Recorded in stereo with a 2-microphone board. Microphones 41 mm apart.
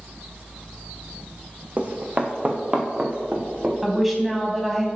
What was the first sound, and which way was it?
Running footsteps, 35° right (ahead or behind).